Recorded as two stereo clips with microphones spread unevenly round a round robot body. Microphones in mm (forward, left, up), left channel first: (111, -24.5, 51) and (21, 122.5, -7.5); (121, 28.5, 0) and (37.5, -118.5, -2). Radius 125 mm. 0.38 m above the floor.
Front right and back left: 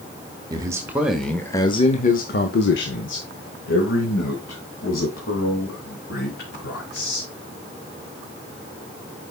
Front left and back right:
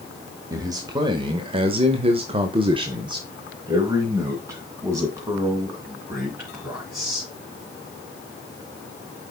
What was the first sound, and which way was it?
A man speaking, 170° left.